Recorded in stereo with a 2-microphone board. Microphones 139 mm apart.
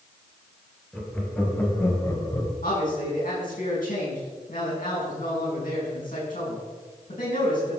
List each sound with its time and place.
0.9 s laughter: 5° left (ahead or behind), 4 m; by 2.5 s 30° left (ahead or behind), 3 m
2.6 s a man speaking: 80° left, 6 m